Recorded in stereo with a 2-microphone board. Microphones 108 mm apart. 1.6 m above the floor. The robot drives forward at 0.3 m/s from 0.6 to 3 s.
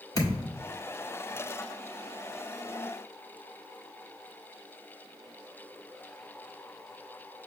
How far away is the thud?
About 1.3 m.